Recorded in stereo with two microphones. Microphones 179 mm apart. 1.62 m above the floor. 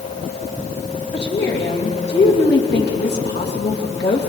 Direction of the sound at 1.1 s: 75° left (ahead or behind).